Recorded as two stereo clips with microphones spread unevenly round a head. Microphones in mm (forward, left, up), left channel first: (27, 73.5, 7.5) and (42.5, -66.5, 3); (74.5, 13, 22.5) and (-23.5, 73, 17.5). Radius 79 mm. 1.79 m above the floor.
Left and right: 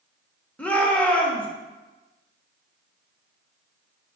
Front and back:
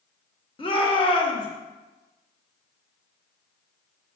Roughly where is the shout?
Ahead.